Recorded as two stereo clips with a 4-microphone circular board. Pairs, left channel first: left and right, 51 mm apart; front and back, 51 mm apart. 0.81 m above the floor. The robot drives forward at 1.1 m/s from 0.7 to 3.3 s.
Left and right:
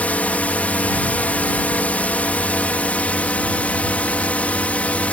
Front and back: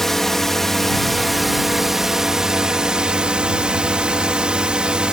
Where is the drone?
80° left; by 5.1 s 125° left.